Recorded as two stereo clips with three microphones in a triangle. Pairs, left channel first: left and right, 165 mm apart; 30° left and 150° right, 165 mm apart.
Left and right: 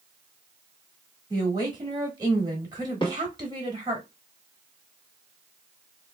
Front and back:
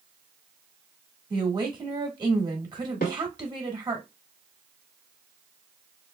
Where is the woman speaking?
125° right, 1.4 m.